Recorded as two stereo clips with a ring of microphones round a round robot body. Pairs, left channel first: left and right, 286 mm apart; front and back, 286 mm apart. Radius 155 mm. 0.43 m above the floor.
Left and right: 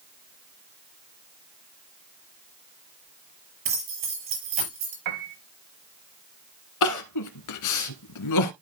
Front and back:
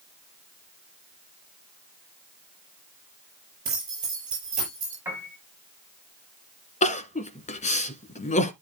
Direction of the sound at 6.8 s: 65° left.